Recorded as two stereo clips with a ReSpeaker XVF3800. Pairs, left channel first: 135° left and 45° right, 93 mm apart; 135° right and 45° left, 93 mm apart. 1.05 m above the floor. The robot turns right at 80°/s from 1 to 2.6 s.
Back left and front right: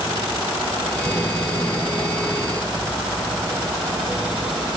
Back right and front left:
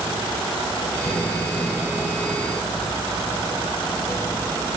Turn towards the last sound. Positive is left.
No sound to turn to.